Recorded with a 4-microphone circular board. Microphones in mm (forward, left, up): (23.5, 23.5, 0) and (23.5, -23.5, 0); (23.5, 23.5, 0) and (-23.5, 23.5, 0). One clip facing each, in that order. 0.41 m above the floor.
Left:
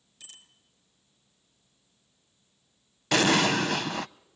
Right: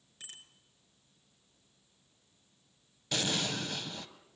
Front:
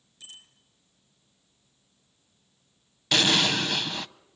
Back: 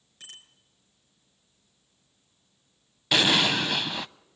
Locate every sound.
0.2 s a bicycle bell: 140° right, 4 m
3.1 s an explosion: 95° left, 0.5 m